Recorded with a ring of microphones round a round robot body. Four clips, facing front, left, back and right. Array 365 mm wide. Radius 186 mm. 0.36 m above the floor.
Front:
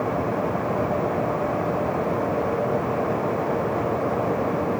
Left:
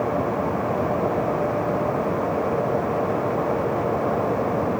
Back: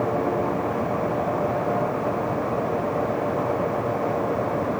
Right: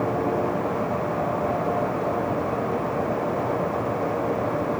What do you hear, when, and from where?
Only background noise.